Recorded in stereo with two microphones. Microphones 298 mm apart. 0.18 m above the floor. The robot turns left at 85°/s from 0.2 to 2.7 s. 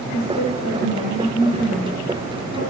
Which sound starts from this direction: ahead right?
A woman speaking, at 0.1 s.